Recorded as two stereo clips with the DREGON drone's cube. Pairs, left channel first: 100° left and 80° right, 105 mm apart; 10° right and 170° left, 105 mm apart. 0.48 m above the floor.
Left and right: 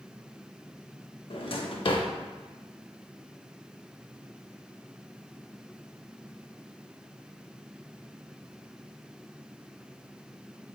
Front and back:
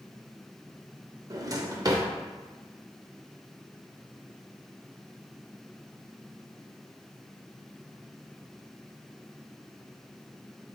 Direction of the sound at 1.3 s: 120° left.